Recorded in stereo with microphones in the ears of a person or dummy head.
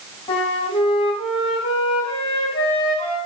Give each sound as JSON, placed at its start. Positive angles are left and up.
{"t": 0.3, "sound": "a flute", "side_deg": 30, "distance_m": 2.5}